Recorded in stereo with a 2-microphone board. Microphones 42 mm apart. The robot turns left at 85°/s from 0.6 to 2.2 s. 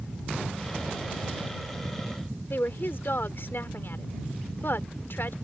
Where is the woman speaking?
65° left (ahead or behind).